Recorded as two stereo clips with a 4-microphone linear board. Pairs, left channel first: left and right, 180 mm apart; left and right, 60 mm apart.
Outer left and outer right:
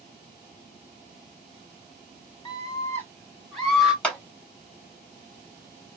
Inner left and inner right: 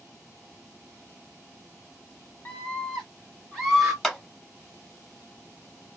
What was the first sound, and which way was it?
A scream, 25° left (ahead or behind).